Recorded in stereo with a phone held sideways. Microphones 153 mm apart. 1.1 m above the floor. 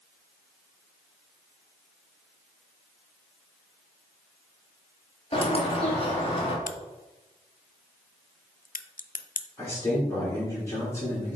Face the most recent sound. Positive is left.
turn(degrees=20)  # may be behind; listen again after turning